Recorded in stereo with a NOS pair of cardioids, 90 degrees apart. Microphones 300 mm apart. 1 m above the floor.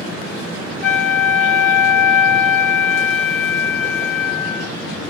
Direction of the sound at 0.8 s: 45° left.